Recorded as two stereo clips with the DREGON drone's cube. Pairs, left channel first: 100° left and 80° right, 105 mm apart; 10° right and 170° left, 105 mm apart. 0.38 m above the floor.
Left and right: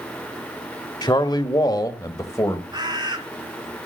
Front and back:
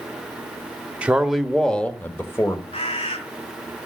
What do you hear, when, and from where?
1.0 s a man speaking: 100° left, 1.1 m; by 2.6 s 45° left, 1.5 m
2.7 s a bird: 35° right, 2.5 m